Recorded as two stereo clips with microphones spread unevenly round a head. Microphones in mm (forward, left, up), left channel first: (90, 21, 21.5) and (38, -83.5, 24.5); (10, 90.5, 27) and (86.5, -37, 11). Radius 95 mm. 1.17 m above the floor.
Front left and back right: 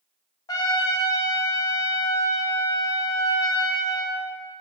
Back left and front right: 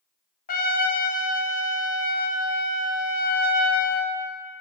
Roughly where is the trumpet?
Behind left.